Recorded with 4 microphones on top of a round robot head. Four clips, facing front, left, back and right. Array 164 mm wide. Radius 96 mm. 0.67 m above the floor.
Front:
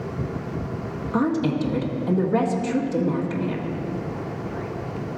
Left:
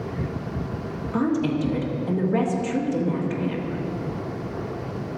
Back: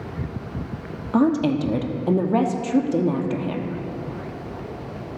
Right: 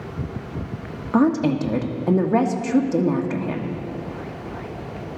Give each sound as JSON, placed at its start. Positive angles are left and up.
{"t": 1.1, "sound": "a woman speaking", "azimuth_deg": -130, "distance_m": 1.3}